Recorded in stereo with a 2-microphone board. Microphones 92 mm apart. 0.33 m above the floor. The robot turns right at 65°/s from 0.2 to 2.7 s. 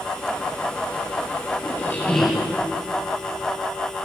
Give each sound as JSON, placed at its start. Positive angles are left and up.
{"t": 1.6, "sound": "a squeak", "azimuth_deg": 140, "distance_m": 2.5}